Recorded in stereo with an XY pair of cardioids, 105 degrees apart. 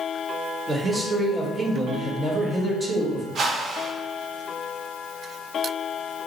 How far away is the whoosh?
About 0.9 m.